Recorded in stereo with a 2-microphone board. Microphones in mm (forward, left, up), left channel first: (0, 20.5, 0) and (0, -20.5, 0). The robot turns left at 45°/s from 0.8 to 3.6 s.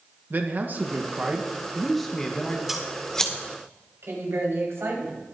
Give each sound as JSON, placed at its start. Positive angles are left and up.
{"t": 0.3, "sound": "a man speaking", "azimuth_deg": -130, "distance_m": 1.3}
{"t": 2.7, "sound": "scissors", "side_deg": -10, "distance_m": 1.9}
{"t": 4.0, "sound": "a woman speaking", "side_deg": -80, "distance_m": 5.0}